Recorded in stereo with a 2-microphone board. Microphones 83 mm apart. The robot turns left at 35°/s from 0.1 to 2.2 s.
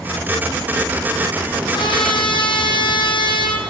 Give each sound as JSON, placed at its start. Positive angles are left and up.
{"t": 1.7, "sound": "a trumpet", "side_deg": 70, "distance_m": 5.5}